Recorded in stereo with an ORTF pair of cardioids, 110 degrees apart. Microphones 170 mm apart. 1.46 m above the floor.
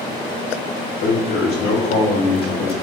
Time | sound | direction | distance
1.0 | a man speaking | 65° left | 1.9 m